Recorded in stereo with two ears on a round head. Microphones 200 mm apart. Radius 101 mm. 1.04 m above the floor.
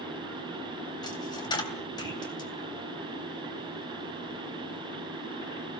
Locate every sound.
1.0 s a dropped coin: 20° left (ahead or behind), 3 m